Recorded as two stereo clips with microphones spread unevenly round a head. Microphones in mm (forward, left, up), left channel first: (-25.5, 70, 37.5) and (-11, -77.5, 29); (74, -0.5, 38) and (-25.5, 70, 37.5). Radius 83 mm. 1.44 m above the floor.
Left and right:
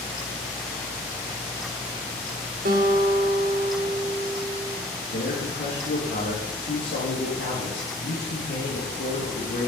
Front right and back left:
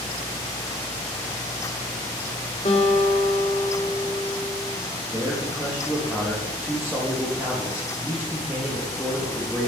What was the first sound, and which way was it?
A guitar, 75° right.